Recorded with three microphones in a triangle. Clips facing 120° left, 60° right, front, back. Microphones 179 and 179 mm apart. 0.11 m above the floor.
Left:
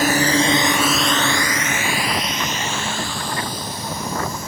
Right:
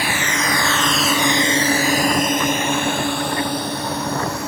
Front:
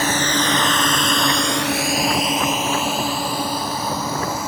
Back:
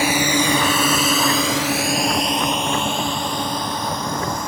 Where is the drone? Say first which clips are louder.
Left 6 dB, back 2 dB; 105° left; by 4.5 s 85° right.